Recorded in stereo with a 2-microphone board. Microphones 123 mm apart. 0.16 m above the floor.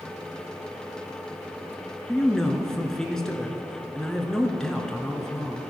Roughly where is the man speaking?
Centre.